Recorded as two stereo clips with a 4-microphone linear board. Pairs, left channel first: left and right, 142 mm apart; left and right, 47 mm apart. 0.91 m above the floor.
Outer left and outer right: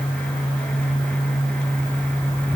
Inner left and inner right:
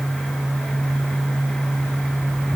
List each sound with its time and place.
Only background noise.